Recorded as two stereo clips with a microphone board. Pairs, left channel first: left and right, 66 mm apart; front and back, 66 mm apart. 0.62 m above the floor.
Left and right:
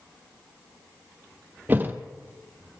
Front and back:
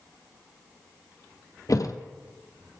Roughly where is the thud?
Ahead right.